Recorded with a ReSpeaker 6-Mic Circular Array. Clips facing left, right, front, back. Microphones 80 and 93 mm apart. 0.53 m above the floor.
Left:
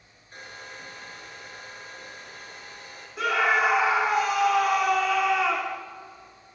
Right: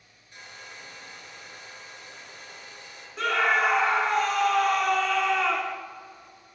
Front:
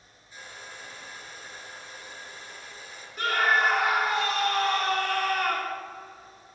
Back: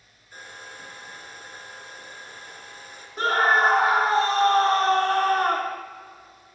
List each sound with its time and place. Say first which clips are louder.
0.3 s a hair dryer: left 3 dB, back 2 dB; 140° left, 5 m
3.2 s a scream: left 1 dB, back 4 dB; 170° left, 1.2 m